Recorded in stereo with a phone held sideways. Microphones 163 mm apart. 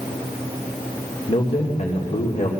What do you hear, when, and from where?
1.3 s a man speaking: 50° left (ahead or behind), 2.5 m